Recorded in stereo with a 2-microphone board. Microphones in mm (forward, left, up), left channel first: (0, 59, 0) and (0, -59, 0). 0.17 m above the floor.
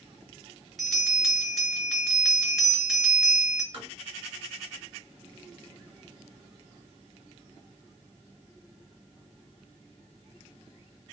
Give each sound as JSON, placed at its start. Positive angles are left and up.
{"t": 0.8, "sound": "a bell", "side_deg": 0, "distance_m": 2.5}
{"t": 3.7, "sound": "tapping", "side_deg": -45, "distance_m": 2.5}